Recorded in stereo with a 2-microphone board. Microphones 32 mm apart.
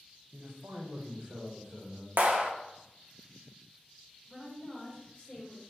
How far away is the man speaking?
About 0.9 m.